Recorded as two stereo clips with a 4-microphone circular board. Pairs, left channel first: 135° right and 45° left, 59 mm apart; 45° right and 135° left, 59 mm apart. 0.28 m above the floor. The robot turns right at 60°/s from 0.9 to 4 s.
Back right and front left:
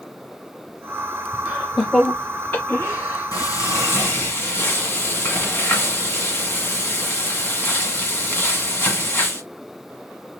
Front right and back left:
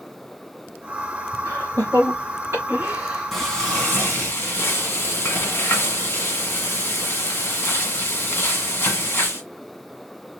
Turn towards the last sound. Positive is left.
turn(degrees=-90)